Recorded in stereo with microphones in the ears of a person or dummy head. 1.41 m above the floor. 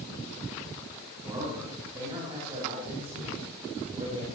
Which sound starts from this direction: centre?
A man speaking, at 1.2 s.